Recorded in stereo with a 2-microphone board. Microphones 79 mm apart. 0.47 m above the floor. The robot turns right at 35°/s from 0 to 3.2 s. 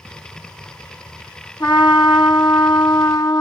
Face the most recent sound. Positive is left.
turn(degrees=125)